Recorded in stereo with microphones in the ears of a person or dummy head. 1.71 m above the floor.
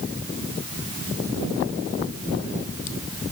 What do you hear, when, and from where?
Only background noise.